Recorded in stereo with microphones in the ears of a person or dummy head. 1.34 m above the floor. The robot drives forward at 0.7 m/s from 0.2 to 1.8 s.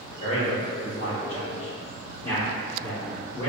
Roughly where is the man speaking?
Left.